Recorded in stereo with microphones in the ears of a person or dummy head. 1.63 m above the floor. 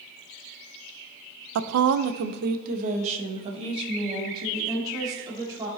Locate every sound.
1.6 s a woman speaking: 70° right (ahead or behind), 0.5 m; by 5.7 s 20° right (ahead or behind), 2.5 m